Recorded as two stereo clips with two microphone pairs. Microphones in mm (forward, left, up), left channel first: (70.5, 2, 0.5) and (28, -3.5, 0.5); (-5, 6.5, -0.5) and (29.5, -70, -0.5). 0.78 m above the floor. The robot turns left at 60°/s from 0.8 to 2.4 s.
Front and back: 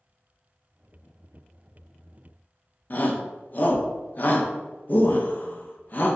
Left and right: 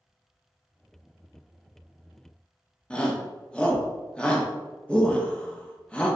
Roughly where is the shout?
Ahead left.